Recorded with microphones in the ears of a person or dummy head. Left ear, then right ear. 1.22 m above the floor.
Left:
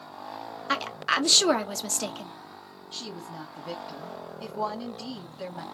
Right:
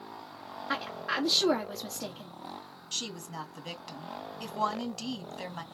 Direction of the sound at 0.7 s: 80° left.